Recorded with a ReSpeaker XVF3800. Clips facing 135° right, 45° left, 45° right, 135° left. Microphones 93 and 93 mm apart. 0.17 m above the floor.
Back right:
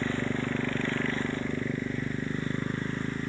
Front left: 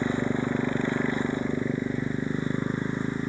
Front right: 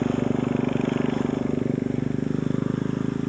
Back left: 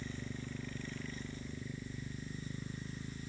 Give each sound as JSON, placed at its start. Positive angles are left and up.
{"t": 0.0, "sound": "a motorcycle", "azimuth_deg": -30}